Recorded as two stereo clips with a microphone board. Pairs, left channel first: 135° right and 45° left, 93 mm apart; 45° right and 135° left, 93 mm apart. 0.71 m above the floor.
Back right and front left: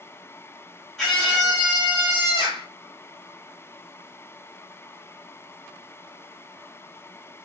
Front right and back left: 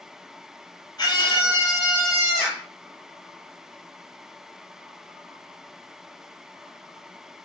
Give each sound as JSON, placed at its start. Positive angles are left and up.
{"t": 1.0, "sound": "a scream", "azimuth_deg": -50, "distance_m": 1.5}